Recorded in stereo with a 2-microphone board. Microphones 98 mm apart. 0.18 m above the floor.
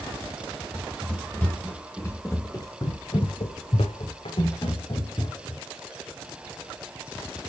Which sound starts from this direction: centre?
Running footsteps, at 0.7 s.